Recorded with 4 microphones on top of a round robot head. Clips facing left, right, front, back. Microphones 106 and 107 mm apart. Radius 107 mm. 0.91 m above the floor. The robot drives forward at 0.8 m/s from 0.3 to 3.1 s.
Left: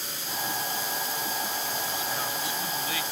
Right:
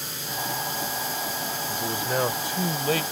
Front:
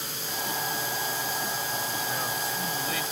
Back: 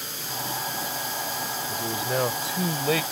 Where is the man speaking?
135° right; by 3.0 s 145° right.